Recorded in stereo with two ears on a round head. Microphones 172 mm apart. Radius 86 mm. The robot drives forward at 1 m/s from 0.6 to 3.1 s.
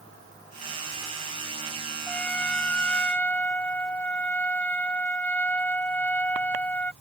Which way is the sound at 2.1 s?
5° left (ahead or behind).